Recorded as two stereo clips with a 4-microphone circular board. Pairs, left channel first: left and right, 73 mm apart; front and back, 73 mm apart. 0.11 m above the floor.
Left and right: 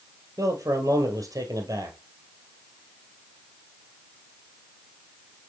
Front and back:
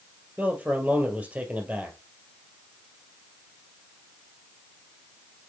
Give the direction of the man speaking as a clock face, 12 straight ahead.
4 o'clock.